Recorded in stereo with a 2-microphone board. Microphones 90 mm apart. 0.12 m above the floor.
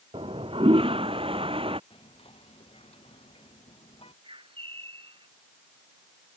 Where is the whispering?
80° left.